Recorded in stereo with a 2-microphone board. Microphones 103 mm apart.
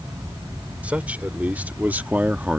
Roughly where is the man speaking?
Centre.